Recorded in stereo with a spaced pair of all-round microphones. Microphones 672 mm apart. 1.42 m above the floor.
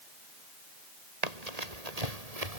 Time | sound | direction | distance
1.2 | running footsteps | 70° right (ahead or behind) | ?